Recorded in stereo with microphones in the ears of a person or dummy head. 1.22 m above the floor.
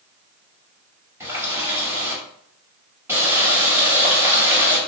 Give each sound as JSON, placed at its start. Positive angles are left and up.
{"t": 1.2, "sound": "a running tap", "side_deg": -10, "distance_m": 1.5}